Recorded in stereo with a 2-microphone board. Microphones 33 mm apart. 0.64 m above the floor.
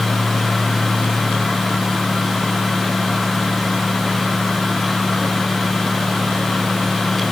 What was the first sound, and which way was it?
Only background noise.